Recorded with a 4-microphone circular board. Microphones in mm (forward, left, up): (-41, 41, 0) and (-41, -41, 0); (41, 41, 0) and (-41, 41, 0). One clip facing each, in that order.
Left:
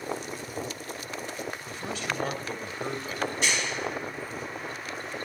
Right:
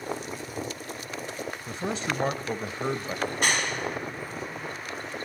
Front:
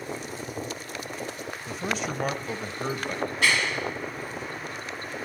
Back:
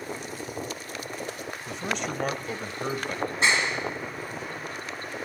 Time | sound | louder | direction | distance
1.7 | a man speaking | right 5 dB, front 1 dB | 85° right | 1.0 m
3.3 | a clap | right 4 dB, back 1 dB | 120° right | 1.7 m